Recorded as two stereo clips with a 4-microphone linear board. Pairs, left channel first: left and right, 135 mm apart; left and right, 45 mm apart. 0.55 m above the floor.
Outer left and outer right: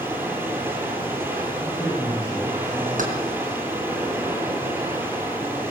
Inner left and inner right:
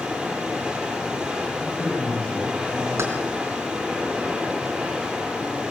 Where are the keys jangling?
75° right (ahead or behind), 4.5 m.